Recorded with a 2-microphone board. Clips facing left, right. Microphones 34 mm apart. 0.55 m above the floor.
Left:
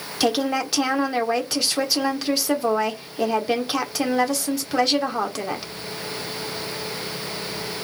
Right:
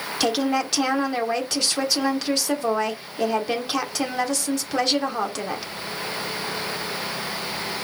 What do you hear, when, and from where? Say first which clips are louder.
0.2 s a woman speaking: left 1 dB; 5° left (ahead or behind), 1.0 m